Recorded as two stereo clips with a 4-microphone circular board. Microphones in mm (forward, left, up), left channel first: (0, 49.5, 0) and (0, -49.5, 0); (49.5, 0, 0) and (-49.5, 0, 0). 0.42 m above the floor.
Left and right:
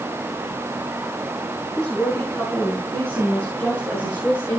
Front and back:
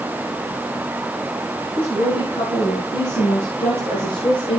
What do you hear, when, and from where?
1.8 s a woman speaking: 10° left, 3.5 m; by 4.6 s 15° left, 5.5 m